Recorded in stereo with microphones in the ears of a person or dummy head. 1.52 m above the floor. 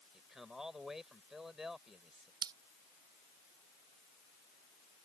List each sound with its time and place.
0.1 s a man speaking: 5° right (ahead or behind)
2.4 s scissors: 25° right (ahead or behind)